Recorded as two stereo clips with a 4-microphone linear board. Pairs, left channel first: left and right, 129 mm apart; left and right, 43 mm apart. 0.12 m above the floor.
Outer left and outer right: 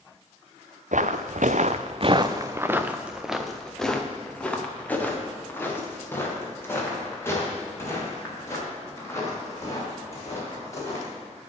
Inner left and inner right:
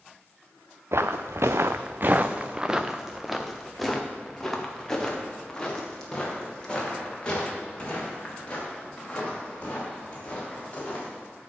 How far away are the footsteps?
About 0.8 m.